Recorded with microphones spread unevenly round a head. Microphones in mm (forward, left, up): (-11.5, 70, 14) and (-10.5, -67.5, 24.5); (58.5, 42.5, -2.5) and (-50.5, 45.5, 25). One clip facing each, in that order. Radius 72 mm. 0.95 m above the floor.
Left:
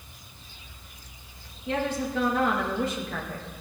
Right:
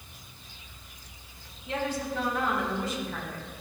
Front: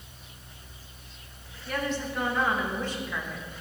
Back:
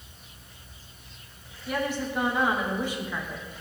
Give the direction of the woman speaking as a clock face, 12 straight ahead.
9 o'clock.